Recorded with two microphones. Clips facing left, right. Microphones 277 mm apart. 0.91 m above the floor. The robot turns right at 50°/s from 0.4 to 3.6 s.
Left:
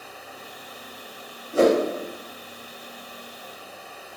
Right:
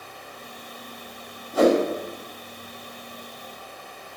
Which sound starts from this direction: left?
A whoosh, at 1.5 s.